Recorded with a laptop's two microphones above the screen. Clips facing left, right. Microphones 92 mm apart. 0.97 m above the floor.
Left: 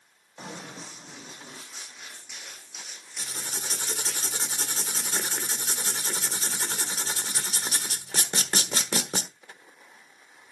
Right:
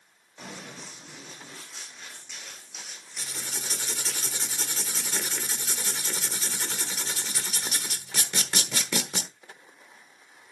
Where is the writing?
35° left (ahead or behind), 1.3 m.